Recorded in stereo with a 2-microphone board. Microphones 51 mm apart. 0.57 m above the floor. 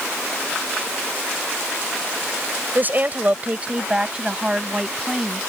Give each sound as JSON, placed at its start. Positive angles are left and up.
{"t": 2.8, "sound": "a woman speaking", "side_deg": -40}